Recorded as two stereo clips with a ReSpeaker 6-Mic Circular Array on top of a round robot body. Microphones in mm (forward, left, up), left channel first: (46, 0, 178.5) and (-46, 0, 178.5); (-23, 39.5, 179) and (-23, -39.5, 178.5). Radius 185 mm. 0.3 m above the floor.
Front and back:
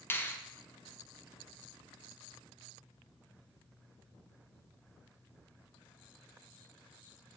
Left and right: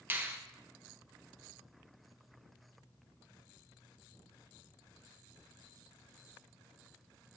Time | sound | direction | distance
0.1 | a finger snap | 50° right | 0.7 m